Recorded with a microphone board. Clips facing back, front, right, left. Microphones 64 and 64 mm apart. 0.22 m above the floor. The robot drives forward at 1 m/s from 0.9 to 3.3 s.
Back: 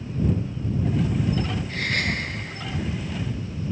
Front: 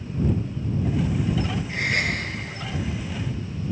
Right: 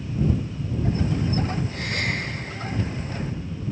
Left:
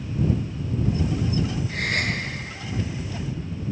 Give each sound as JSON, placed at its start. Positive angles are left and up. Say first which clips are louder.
{"t": 1.7, "sound": "a gasp", "louder": "front 2 dB, left 2 dB", "azimuth_deg": 75, "distance_m": 4.5}